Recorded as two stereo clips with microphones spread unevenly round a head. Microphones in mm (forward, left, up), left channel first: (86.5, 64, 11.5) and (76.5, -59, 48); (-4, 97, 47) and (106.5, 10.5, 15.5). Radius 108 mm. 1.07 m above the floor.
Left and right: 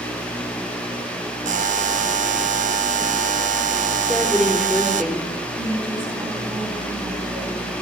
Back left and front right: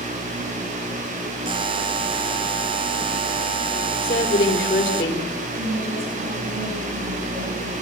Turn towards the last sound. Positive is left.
turn(degrees=-40)